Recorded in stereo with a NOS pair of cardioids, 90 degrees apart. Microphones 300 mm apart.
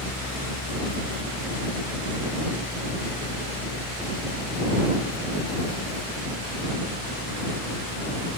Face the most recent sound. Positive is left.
turn(degrees=30)